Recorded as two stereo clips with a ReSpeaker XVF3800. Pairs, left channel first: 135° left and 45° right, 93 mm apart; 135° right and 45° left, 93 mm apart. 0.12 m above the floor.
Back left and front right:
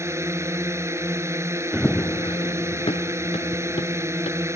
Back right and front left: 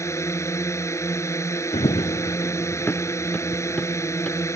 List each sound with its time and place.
0.0 s a drone: 90° right
1.7 s running footsteps: 125° right; by 4.5 s 145° left